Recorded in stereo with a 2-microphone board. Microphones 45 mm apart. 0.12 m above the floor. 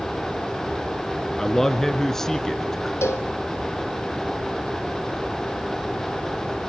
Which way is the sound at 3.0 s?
75° left (ahead or behind).